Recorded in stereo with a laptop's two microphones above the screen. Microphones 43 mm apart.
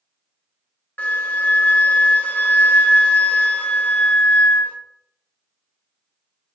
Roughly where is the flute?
Left.